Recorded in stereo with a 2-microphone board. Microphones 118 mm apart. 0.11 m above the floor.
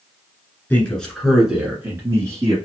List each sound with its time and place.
0.7 s a man speaking: 15° left (ahead or behind), 1.5 m; by 2.6 s 30° right (ahead or behind), 1.7 m